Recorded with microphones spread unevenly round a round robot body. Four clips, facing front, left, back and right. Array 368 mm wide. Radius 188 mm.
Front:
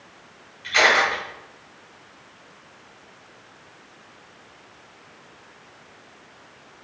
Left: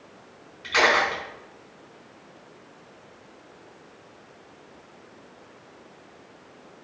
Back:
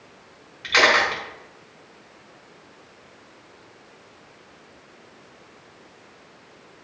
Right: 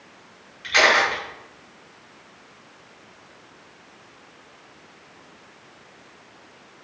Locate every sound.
0.6 s a camera shutter: straight behind, 4.5 m